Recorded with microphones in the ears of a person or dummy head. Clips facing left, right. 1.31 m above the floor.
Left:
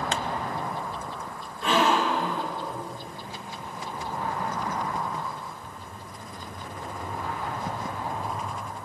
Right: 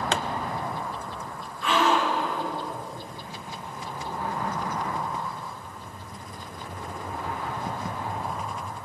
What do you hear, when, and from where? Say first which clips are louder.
0.1 s a pop: right 5 dB; 50° right (ahead or behind), 0.7 m
1.6 s a gasp: even; 25° left (ahead or behind), 6 m